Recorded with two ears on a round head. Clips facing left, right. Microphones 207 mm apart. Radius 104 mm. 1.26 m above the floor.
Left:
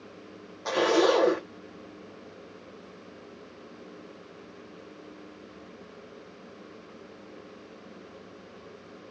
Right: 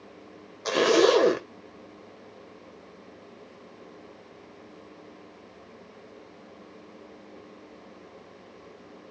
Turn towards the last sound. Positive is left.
turn(degrees=-35)  # may be behind; listen again after turning